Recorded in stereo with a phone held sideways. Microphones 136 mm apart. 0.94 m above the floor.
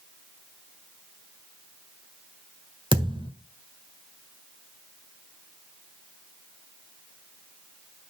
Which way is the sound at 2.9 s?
35° right (ahead or behind).